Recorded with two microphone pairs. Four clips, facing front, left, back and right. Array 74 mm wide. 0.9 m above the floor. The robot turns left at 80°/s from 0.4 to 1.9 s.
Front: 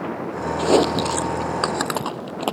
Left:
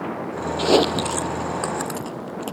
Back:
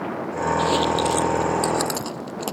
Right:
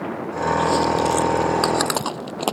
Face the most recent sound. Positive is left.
turn(degrees=-55)